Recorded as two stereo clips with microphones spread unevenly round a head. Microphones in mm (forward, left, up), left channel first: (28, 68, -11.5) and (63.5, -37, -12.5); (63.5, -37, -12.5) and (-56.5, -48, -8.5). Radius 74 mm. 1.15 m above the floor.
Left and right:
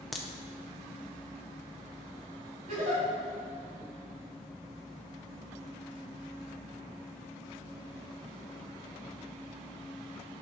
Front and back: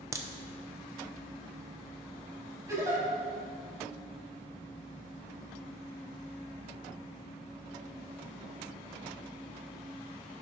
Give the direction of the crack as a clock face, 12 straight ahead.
5 o'clock.